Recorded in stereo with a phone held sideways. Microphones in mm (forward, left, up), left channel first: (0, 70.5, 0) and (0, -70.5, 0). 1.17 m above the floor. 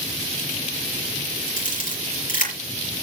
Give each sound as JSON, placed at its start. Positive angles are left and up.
{"t": 1.6, "sound": "a camera shutter", "side_deg": 80, "distance_m": 6.0}